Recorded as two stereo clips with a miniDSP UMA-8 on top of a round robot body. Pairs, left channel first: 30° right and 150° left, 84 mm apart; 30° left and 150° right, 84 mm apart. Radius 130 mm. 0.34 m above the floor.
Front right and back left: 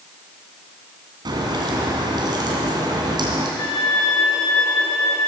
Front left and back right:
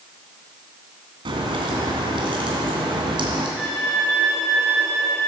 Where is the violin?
60° right, 7 m.